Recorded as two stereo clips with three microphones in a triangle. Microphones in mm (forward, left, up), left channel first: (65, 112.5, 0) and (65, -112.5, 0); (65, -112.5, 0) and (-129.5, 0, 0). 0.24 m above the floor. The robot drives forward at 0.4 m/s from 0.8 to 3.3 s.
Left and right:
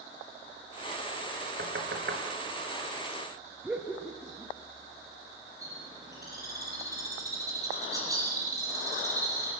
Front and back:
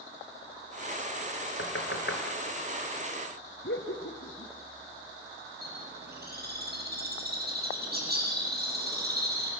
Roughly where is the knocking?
Ahead right.